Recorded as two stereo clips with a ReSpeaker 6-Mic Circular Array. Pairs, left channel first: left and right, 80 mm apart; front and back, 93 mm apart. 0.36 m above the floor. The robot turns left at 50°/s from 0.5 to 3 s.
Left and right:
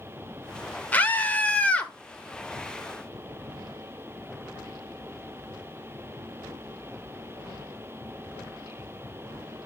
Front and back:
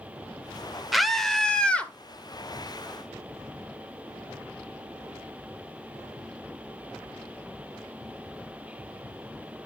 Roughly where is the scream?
Left.